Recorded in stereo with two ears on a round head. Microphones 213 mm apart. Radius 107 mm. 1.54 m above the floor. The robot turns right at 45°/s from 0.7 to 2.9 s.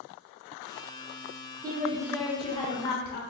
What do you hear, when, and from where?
1.6 s a woman speaking: 15° right, 0.9 m; by 3.2 s 40° left, 0.9 m